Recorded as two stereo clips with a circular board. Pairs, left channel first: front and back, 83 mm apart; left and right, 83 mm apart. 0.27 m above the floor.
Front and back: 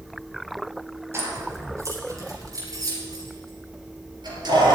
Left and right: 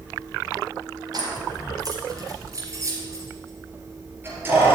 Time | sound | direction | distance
1.1 | keys jangling | 125° right | 3.5 m